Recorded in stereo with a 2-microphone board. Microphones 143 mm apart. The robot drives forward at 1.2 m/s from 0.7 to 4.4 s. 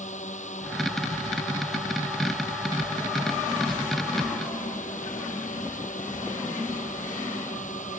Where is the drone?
60° left (ahead or behind); by 8.0 s 65° left (ahead or behind).